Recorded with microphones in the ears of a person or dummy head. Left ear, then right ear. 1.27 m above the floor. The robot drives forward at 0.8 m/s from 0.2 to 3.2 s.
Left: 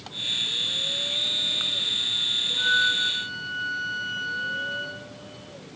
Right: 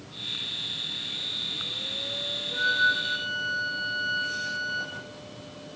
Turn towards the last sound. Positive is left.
turn(degrees=-10)  # may be behind; listen again after turning